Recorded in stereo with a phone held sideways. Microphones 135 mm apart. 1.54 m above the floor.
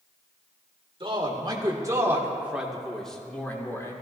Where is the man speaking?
40° right (ahead or behind), 2.5 m; by 3.9 s 20° left (ahead or behind), 2 m.